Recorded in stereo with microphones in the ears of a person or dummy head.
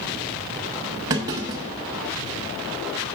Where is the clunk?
15° right (ahead or behind), 1.0 m.